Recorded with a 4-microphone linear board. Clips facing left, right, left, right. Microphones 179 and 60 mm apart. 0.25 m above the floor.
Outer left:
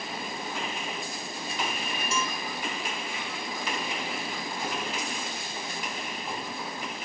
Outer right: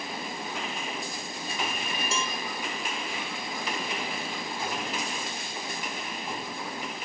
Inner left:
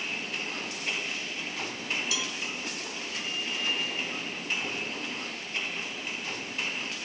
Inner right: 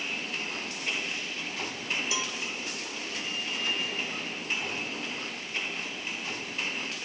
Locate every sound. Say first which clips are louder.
2.1 s a cowbell: outer left 2 dB, inner right 1 dB; 30° right (ahead or behind), 1.8 m